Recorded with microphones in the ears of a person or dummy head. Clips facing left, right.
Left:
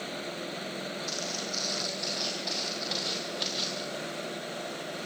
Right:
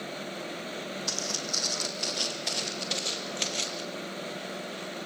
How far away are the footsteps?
About 3 m.